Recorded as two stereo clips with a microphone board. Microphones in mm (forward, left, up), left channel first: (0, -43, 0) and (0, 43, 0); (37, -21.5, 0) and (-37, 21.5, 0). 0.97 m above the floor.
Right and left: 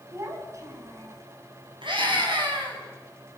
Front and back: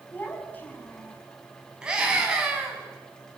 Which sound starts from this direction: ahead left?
A child speaking, at 0.1 s.